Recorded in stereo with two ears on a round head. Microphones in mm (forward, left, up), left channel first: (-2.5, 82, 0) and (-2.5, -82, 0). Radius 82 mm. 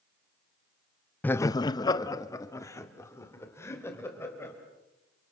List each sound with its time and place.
1.2 s laughter: 10° left (ahead or behind), 0.5 m; by 4.5 s 15° left (ahead or behind), 4 m